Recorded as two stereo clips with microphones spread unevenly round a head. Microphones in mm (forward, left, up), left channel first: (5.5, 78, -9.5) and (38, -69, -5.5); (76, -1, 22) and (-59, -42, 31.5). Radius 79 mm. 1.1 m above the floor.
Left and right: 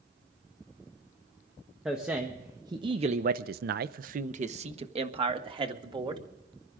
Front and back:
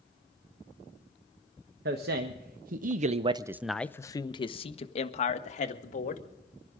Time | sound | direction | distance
1.9 | a man speaking | 165° right | 1.2 m